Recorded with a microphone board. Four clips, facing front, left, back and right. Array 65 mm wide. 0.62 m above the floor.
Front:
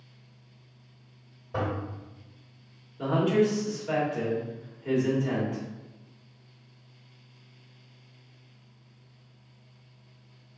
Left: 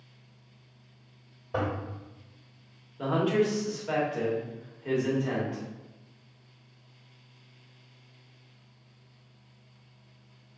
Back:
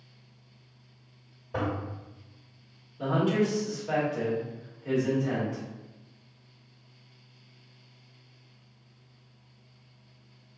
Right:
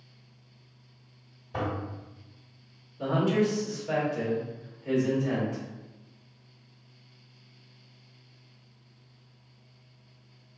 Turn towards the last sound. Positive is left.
turn(degrees=65)